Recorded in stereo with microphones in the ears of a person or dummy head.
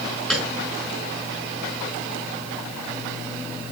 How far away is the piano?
About 4 m.